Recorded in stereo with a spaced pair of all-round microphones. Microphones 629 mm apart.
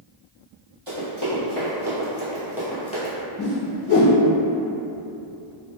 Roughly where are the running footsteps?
Right.